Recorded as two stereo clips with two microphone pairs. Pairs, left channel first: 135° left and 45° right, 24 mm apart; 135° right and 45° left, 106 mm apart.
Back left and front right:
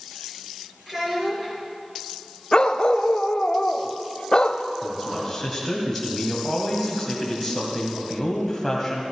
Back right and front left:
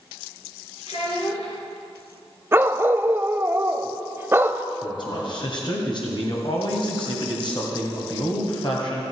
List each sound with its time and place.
0.9 s a child speaking: 120° right, 4.5 m
2.5 s a dog barking: 100° left, 0.5 m
4.8 s a man speaking: 140° right, 2 m